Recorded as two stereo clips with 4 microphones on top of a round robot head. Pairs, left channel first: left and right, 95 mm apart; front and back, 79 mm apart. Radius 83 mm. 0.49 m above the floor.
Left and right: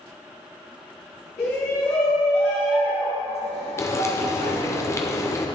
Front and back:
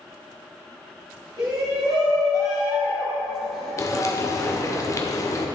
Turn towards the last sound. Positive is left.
turn(degrees=40)